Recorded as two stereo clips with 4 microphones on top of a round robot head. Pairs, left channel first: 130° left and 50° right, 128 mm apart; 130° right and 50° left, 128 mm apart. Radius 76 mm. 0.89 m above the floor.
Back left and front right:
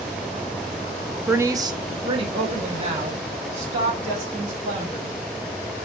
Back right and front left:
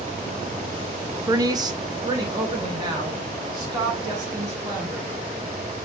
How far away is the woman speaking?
About 0.5 m.